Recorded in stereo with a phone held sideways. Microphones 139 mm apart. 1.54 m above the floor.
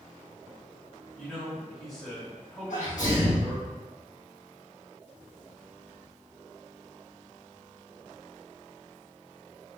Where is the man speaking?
Centre (ahead or behind), 2.0 m.